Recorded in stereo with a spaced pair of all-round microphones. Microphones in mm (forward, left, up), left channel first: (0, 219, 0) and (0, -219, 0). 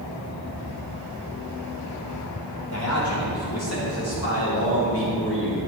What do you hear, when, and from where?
2.7 s a man speaking: 40° left (ahead or behind), 5 m; by 5.6 s 25° left (ahead or behind), 6 m